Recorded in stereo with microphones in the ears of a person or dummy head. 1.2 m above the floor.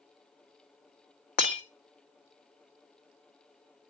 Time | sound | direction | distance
1.4 | breaking glass | 35° left (ahead or behind) | 1.3 m